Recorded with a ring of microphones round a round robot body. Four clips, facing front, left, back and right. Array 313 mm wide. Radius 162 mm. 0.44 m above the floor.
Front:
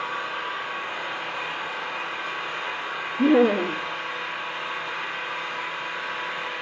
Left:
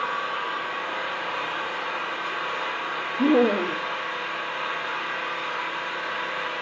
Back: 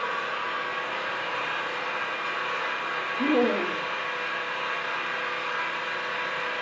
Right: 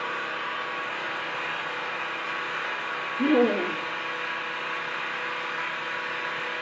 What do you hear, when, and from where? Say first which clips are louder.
0.0 s an engine running: left 4 dB, even; 110° left, 9 m
3.2 s laughter: left 2 dB, front 6 dB; 25° left, 1.1 m